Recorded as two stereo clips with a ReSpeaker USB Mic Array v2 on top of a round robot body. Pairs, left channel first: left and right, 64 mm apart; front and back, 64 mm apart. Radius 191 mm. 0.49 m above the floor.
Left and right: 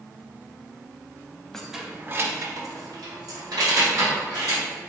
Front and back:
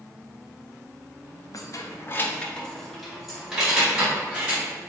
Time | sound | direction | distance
1.5 | keys jangling | 10° left | 0.7 m